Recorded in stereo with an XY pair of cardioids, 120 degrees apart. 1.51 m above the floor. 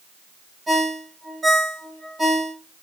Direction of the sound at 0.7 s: 25° right.